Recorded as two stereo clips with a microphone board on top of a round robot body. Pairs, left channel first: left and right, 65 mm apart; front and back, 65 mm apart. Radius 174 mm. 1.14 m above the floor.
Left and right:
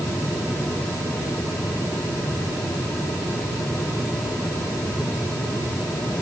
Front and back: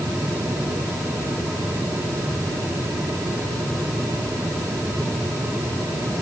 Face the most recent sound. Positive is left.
No sound to turn to.